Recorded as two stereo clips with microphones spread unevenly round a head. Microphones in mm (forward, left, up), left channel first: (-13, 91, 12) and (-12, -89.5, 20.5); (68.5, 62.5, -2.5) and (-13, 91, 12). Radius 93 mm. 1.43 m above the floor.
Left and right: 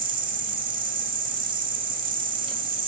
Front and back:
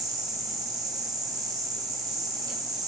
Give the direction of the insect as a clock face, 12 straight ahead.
5 o'clock.